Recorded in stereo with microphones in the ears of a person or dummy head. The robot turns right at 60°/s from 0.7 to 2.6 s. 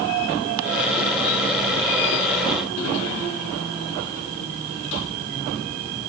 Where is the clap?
No clap in this recording.